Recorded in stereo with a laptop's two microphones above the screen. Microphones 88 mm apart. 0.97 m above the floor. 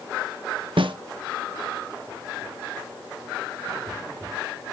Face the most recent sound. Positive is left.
turn(degrees=-70)  # may be behind; listen again after turning